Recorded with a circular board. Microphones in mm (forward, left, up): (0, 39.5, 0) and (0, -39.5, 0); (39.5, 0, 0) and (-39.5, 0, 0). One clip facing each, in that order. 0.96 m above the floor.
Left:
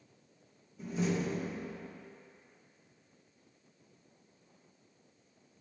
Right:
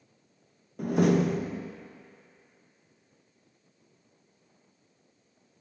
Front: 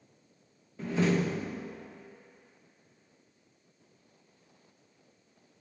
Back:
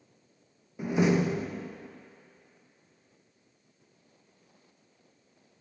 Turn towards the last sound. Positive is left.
turn(degrees=-105)